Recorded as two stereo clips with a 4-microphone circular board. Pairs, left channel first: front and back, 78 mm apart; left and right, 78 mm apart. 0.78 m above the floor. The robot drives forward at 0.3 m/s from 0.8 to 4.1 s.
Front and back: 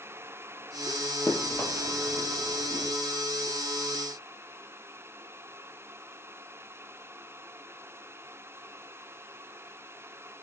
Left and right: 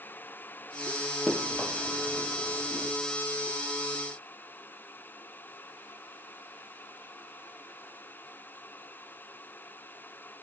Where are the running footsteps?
Straight ahead, 0.8 m; by 2.9 s 135° left, 1.3 m.